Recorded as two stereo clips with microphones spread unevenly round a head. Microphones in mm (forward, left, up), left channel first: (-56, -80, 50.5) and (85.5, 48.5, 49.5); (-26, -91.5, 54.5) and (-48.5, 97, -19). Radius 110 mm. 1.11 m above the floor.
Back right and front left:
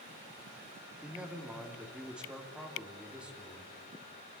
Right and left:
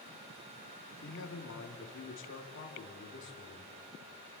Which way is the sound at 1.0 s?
40° right.